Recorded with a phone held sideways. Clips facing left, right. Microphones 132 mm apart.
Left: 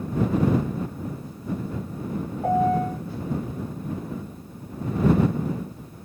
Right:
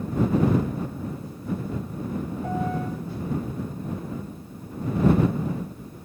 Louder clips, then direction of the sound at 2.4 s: Left 9 dB; 55° left (ahead or behind).